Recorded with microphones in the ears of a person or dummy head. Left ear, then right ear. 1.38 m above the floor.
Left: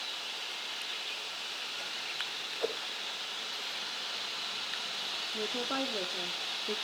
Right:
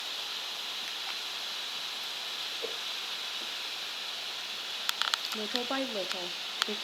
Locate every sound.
2.6 s a whoosh: 60° left (ahead or behind), 1.1 m
5.3 s a woman speaking: 25° right (ahead or behind), 0.7 m